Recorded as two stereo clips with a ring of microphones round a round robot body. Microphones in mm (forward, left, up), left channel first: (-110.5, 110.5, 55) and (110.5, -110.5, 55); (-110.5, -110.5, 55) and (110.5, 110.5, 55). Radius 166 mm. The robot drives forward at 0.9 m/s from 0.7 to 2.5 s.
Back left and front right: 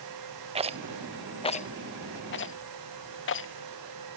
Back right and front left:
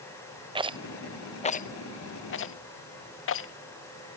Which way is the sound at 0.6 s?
5° right.